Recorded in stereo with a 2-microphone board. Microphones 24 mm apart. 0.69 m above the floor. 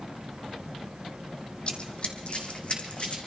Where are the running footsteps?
50° left (ahead or behind), 1.4 m; by 3.2 s 55° left (ahead or behind), 2.5 m.